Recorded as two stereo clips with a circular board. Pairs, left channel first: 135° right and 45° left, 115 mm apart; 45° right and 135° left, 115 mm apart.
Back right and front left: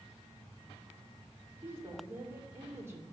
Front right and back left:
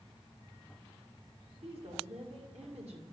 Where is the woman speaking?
115° left, 2.5 m.